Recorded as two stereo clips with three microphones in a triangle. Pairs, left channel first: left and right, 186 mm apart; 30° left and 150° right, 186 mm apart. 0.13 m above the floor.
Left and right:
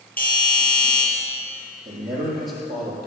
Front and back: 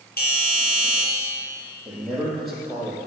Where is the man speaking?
60° right, 5 m.